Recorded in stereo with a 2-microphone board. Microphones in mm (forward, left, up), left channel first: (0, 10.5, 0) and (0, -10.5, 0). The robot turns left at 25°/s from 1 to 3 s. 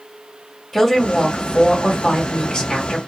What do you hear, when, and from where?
0.7 s a woman speaking: 170° left, 1.5 m; by 3.0 s 120° left, 1.5 m